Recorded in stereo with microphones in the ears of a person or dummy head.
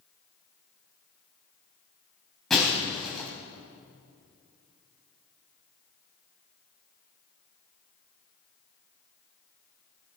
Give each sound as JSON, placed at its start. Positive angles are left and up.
{"t": 2.5, "sound": "breaking glass", "side_deg": 5, "distance_m": 3.0}